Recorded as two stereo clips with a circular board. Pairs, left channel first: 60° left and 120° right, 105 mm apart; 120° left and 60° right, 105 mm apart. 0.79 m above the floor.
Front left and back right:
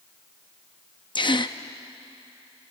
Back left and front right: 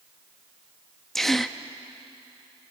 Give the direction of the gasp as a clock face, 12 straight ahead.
11 o'clock.